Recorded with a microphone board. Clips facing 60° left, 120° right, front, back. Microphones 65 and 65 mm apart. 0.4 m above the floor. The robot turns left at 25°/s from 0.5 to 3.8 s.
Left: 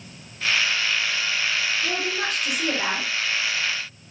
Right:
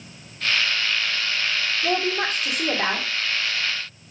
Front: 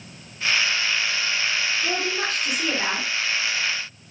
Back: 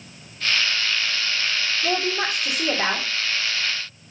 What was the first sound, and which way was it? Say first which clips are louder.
A woman speaking: right 3 dB, back 2 dB; 125° right.